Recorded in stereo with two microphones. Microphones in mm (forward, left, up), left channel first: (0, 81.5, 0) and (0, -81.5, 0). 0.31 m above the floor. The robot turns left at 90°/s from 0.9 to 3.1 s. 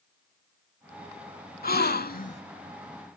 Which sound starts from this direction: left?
A gasp, at 1.6 s.